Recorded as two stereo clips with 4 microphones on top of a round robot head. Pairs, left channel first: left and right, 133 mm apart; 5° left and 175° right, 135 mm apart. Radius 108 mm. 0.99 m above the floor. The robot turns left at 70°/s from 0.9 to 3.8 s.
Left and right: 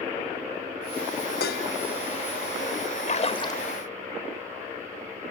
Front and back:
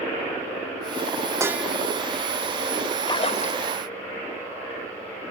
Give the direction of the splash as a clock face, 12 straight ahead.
10 o'clock.